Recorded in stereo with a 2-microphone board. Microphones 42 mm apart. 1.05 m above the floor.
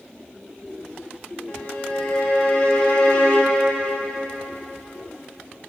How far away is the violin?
About 1.3 m.